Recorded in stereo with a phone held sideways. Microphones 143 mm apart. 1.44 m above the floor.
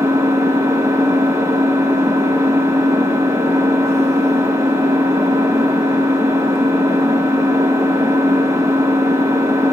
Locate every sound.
0.0 s an engine running: 20° right (ahead or behind), 0.9 m